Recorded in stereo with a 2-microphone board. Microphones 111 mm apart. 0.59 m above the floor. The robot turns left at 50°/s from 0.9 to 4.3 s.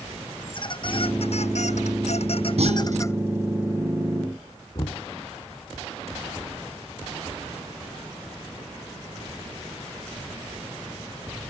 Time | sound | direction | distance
0.4 | a squeak | 135° left | ?
2.6 | a clunk | 65° right (ahead or behind) | ?
4.8 | knocking | 40° left (ahead or behind) | ?